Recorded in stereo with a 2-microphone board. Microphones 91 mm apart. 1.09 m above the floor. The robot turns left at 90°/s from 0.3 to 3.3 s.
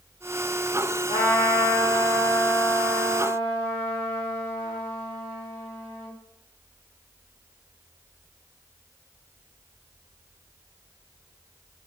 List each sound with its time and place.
1.1 s a trumpet: 100° left, 1.5 m; by 6.1 s 100° right, 1.5 m